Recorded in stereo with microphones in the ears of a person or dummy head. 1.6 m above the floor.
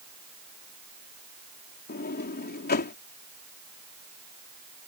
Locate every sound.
1.9 s a sliding door: 45° left (ahead or behind)